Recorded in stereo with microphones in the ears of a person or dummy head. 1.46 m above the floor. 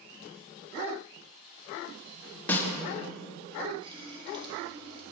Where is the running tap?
25° right (ahead or behind), 1.9 m.